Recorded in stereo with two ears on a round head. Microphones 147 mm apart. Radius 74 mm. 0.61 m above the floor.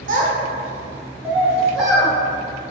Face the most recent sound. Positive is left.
turn(degrees=0)  # may be behind; listen again after turning